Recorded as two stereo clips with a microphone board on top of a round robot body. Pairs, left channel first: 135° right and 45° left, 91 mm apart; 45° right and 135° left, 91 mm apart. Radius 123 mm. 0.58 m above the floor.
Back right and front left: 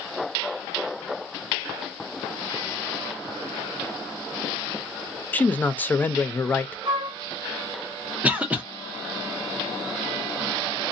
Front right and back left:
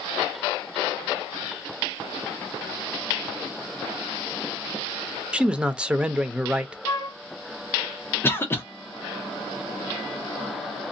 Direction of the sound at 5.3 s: 165° right.